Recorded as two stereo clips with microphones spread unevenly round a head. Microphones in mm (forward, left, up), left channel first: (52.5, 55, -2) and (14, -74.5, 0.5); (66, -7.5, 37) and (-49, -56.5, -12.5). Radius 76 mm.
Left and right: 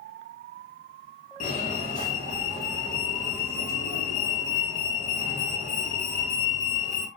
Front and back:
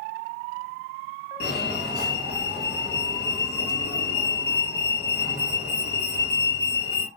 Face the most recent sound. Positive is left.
turn(degrees=55)